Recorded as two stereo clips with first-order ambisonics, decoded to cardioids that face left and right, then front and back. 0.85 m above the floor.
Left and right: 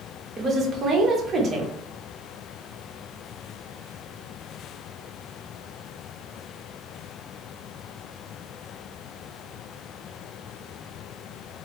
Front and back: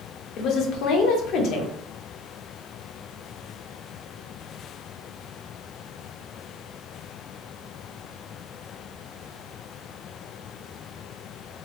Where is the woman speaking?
30° right, 0.7 m.